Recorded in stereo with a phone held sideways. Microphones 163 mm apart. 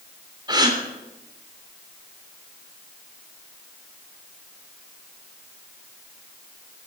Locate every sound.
0.5 s a gasp: 25° right (ahead or behind), 3 m